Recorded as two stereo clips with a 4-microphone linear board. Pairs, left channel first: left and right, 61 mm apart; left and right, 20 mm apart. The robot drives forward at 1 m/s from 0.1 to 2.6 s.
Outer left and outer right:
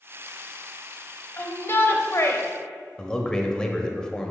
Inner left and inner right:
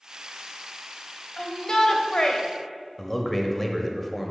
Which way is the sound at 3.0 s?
10° left (ahead or behind).